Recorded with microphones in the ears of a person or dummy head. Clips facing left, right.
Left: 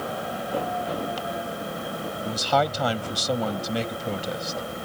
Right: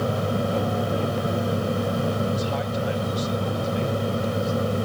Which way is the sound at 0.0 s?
55° right (ahead or behind).